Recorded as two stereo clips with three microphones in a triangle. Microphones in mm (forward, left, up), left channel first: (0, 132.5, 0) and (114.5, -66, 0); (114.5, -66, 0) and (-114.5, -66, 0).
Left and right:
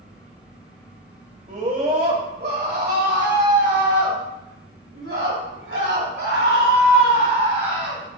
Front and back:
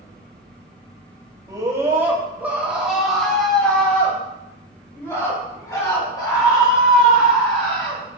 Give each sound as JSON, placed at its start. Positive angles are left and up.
{"t": 1.5, "sound": "a scream", "azimuth_deg": -110, "distance_m": 2.0}